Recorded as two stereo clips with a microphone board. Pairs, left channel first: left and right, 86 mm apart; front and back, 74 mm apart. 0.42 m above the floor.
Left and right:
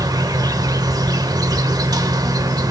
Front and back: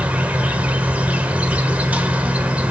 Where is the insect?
110° right, 1.2 m.